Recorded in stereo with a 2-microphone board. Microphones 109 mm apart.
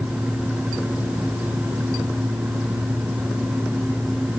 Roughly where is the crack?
I don't hear a crack.